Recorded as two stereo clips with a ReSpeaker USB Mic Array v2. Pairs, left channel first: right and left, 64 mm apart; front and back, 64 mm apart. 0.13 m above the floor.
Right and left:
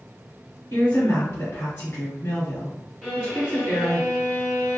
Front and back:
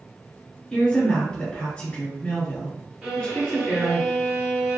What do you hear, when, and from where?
0.7 s a woman speaking: 65° right, 1.6 m
3.0 s a violin: 150° right, 1.5 m